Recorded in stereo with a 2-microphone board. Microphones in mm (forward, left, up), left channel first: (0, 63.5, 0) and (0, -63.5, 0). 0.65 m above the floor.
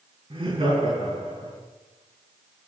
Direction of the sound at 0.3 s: 50° right (ahead or behind).